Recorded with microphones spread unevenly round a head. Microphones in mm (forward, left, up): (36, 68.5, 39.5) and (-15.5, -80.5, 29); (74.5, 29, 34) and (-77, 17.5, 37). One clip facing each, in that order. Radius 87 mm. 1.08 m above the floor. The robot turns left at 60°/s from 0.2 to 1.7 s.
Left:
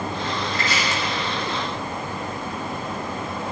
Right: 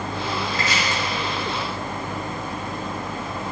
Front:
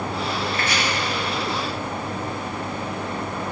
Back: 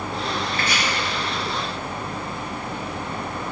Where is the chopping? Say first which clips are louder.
Even, front 1 dB; 115° right, 2 m; by 0.8 s 130° right, 2 m.